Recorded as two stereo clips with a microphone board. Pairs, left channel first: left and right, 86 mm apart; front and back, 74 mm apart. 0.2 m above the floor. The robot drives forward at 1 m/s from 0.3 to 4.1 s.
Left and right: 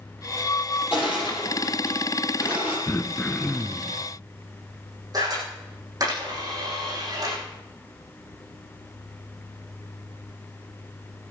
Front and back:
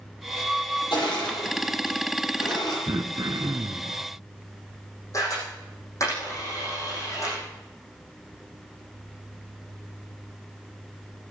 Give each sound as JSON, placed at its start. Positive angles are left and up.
{"t": 0.9, "sound": "crushing", "azimuth_deg": -15, "distance_m": 6.5}
{"t": 2.9, "sound": "throat clearing", "azimuth_deg": 155, "distance_m": 0.9}
{"t": 5.1, "sound": "a camera shutter", "azimuth_deg": -50, "distance_m": 8.0}